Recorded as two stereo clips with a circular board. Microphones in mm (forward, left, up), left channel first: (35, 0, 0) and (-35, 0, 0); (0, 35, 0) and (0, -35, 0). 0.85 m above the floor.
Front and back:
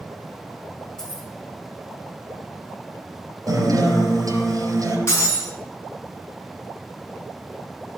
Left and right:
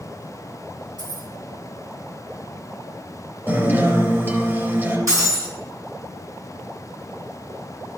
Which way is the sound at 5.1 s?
50° right.